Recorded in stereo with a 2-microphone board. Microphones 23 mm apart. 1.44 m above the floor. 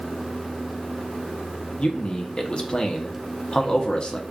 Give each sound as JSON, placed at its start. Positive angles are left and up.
{"t": 1.8, "sound": "a man speaking", "side_deg": 45, "distance_m": 0.9}